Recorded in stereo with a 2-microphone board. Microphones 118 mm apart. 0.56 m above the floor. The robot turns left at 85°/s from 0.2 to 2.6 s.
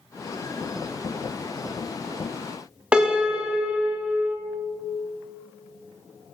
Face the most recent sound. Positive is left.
turn(degrees=-10)  # may be behind; listen again after turning